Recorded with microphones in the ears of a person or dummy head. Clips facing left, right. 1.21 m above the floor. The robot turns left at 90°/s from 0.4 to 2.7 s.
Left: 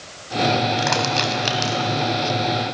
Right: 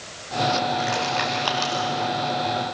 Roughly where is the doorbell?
No doorbell in this recording.